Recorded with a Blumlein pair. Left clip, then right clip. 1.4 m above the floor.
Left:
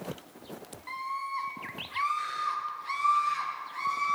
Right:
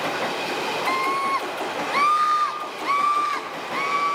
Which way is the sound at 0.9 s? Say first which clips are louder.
Right 10 dB; 35° right.